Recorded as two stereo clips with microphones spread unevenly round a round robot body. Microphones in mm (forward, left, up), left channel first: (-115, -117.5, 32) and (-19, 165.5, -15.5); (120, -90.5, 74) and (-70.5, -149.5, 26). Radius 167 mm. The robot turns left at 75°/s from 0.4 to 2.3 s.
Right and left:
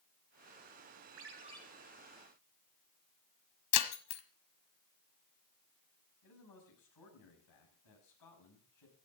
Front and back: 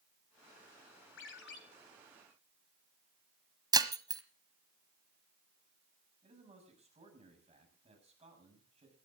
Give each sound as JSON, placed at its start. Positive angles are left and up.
{"t": 1.2, "sound": "a ringtone", "azimuth_deg": 20, "distance_m": 2.0}
{"t": 3.7, "sound": "breaking glass", "azimuth_deg": -85, "distance_m": 1.4}
{"t": 6.2, "sound": "a man speaking", "azimuth_deg": -105, "distance_m": 7.0}